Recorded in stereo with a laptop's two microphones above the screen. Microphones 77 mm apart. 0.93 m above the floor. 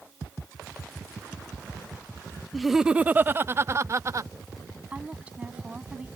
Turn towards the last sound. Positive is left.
turn(degrees=-15)  # may be behind; listen again after turning